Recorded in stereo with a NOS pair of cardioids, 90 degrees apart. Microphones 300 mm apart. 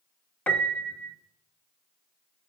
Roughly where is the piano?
Ahead.